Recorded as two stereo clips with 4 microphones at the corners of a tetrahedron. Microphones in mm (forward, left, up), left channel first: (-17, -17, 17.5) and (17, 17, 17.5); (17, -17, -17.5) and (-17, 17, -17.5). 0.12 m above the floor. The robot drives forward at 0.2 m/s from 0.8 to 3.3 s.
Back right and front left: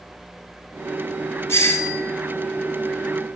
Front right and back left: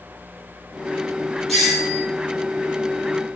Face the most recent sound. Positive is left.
turn(degrees=-140)